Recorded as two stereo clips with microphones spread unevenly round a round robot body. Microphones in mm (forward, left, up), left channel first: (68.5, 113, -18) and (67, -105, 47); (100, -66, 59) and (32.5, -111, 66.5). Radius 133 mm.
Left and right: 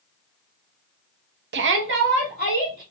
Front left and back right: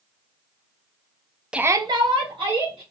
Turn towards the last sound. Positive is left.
turn(degrees=-155)